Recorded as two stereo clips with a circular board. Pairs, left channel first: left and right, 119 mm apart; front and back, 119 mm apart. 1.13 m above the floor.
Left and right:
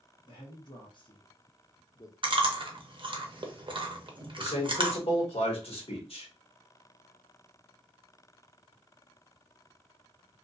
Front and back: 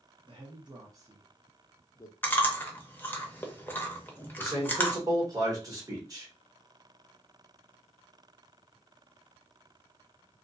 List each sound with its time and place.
0.2 s a man speaking: 140° left, 1.1 m; by 2.1 s 40° left, 0.6 m
2.2 s chewing: 70° right, 0.6 m
4.4 s a man speaking: 120° left, 1.3 m